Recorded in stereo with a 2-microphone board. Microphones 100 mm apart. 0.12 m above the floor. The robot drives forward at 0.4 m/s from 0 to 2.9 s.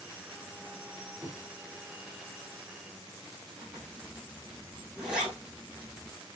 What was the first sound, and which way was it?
Knocking, 15° right (ahead or behind).